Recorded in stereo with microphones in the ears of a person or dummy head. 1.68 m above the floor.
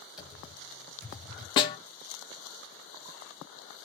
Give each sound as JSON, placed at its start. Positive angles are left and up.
{"t": 0.2, "sound": "typing on a keyboard", "side_deg": -5, "distance_m": 1.6}
{"t": 1.6, "sound": "a snare drum", "side_deg": 30, "distance_m": 0.5}